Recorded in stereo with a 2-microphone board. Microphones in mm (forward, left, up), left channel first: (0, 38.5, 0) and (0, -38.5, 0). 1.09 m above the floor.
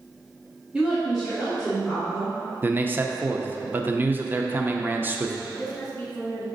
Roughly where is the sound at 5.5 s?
Left.